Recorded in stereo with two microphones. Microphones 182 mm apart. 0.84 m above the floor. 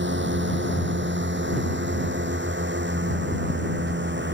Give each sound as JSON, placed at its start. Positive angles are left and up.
{"t": 0.0, "sound": "a drone", "side_deg": -90}